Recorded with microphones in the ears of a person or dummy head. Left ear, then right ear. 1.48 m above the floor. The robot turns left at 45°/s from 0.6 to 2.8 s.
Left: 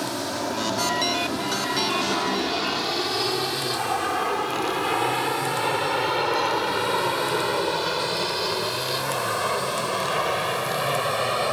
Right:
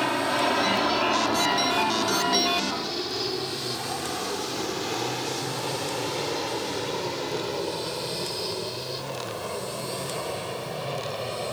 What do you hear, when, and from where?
0.0 s an aircraft: 65° right (ahead or behind); by 11.5 s 50° left (ahead or behind)